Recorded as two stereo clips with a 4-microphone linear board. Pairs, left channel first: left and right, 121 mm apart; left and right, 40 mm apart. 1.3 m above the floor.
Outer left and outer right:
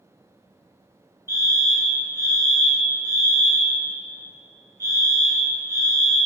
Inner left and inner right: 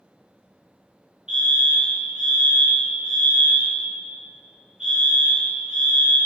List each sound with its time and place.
1.3 s a fire alarm: 20° right (ahead or behind), 1.3 m